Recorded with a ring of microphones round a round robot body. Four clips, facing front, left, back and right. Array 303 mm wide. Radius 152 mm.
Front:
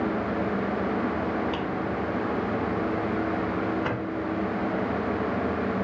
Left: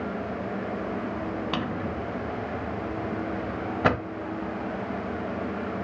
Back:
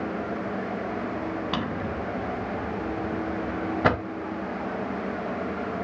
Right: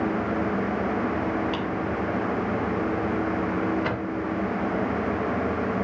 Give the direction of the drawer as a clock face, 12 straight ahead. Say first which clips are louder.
Right 3 dB, front 1 dB; 7 o'clock.